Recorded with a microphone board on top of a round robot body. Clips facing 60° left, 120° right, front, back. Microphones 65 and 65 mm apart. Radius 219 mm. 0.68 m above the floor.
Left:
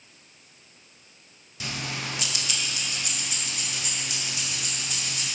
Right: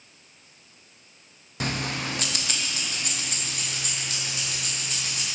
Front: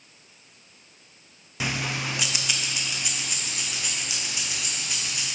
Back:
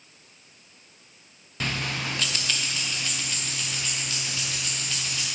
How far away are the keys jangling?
About 0.7 m.